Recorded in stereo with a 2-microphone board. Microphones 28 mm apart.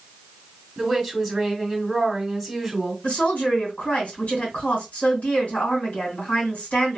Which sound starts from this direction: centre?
A woman speaking, at 0.8 s.